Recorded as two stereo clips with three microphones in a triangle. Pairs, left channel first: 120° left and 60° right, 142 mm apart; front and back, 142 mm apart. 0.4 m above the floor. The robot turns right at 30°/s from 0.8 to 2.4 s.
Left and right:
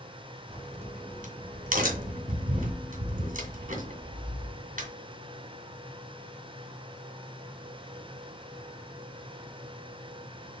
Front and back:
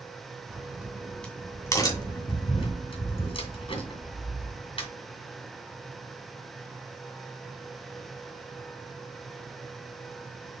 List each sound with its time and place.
0.5 s a crack: 95° right, 2.5 m; by 4.9 s 50° right, 2.5 m